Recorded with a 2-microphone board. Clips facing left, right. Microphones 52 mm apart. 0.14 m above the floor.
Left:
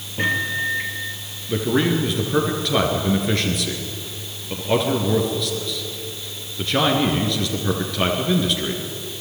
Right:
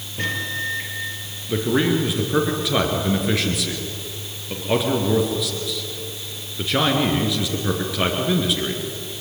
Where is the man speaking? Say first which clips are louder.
Even; 5° right (ahead or behind), 2.5 m.